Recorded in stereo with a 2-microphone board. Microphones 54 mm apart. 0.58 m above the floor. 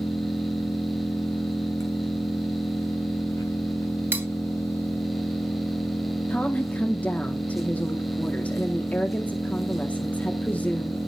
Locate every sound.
0.0 s an engine running: 85° left, 3 m
4.1 s cutlery clinking: 40° right (ahead or behind), 1.1 m
6.3 s a woman speaking: 30° left (ahead or behind), 1.0 m